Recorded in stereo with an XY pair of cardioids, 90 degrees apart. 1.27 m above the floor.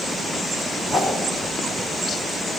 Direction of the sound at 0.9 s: 50° left.